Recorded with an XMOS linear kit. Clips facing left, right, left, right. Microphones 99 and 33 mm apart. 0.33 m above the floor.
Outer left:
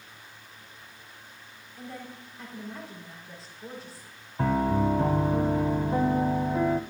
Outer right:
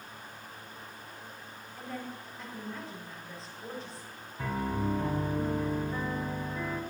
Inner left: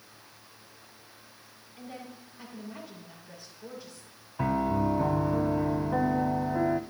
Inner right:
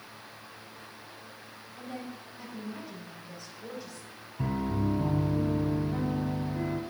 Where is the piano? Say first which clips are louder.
Outer left 8 dB, inner left 4 dB; 55° left (ahead or behind), 1.2 m.